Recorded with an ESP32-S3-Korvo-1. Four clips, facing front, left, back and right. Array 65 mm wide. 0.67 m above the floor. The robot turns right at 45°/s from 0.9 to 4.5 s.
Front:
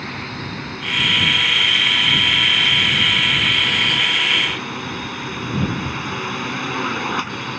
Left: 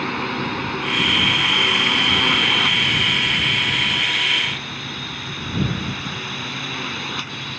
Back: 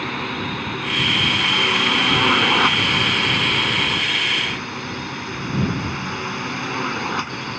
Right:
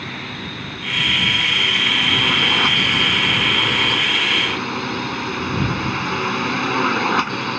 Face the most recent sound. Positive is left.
turn(degrees=-85)